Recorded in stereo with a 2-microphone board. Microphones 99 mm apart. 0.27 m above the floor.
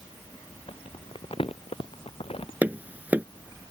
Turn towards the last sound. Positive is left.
turn(degrees=-15)  # may be behind; listen again after turning